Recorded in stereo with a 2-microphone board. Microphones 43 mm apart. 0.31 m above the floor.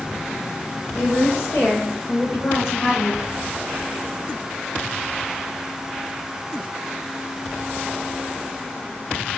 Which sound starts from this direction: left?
A woman speaking, at 0.9 s.